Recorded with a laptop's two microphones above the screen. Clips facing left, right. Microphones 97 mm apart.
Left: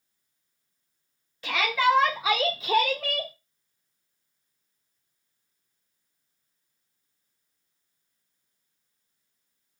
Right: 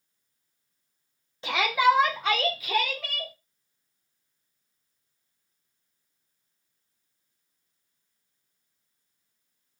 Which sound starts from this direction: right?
A shout, at 1.4 s.